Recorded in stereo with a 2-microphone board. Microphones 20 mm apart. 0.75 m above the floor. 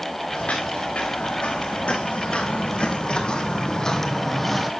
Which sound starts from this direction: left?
Footsteps, at 0.3 s.